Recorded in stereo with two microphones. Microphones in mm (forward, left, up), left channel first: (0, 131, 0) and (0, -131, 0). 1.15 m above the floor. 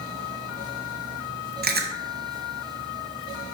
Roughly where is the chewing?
Right.